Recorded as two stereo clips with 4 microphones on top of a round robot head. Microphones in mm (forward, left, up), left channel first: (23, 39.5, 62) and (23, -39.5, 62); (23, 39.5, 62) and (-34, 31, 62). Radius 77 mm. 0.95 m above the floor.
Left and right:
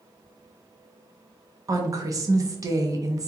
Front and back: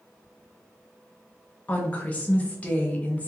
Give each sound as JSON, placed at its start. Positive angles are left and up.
{"t": 1.7, "sound": "a woman speaking", "azimuth_deg": -50, "distance_m": 0.8}